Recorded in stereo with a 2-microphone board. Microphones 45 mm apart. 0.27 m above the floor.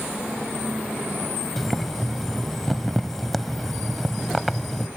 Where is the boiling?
Centre (ahead or behind).